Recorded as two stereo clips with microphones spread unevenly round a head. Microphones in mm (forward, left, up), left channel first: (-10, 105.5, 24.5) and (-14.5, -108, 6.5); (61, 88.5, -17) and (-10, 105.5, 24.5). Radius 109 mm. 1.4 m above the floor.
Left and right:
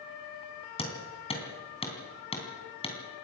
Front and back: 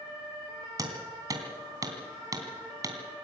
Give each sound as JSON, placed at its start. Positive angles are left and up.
{"t": 0.8, "sound": "hammering", "azimuth_deg": 150, "distance_m": 3.5}